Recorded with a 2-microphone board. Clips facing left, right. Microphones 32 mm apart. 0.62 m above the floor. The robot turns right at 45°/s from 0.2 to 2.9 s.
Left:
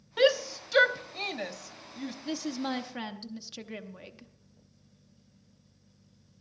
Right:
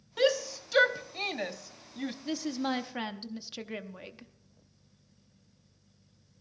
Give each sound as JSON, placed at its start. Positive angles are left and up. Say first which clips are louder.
{"t": 0.2, "sound": "a shout", "louder": "left 3 dB", "side_deg": 20, "distance_m": 0.6}
{"t": 2.2, "sound": "a woman speaking", "louder": "even", "side_deg": 0, "distance_m": 0.7}